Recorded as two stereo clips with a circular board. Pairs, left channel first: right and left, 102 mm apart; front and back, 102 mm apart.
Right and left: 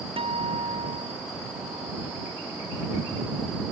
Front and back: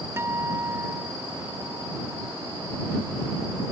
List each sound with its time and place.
0.2 s a guitar: 115° left